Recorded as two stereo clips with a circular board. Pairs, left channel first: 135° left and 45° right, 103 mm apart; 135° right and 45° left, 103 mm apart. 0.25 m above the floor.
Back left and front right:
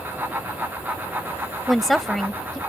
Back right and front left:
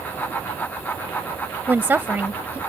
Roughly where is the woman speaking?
Ahead left.